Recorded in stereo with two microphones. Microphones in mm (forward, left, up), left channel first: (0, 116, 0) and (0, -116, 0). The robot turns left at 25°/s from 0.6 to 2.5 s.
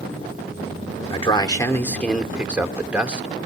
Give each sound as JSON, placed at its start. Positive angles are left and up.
{"t": 1.1, "sound": "a man speaking", "azimuth_deg": 30, "distance_m": 1.5}